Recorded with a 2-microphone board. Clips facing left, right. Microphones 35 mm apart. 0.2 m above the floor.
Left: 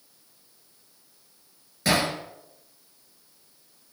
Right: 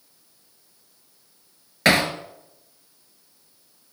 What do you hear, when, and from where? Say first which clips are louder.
1.9 s hammering: right 5 dB; 70° right (ahead or behind), 2.5 m